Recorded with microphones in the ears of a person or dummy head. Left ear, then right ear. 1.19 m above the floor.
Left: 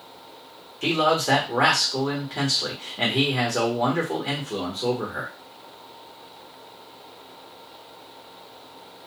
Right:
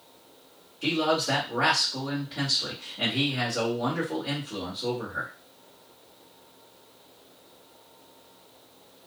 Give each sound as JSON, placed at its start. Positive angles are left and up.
{"t": 0.8, "sound": "a man speaking", "side_deg": 60, "distance_m": 1.5}